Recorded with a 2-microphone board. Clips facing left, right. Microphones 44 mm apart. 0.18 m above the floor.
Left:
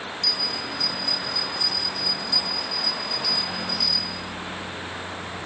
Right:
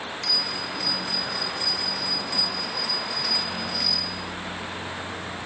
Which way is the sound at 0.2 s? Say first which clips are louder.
Even; 50° right (ahead or behind).